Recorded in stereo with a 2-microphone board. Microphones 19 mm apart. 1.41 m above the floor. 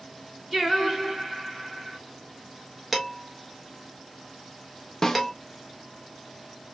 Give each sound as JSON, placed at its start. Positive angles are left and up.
{"t": 0.5, "sound": "singing", "side_deg": -25, "distance_m": 2.0}
{"t": 2.9, "sound": "dishes clattering", "side_deg": -10, "distance_m": 1.3}
{"t": 5.0, "sound": "a snare drum", "side_deg": 35, "distance_m": 0.6}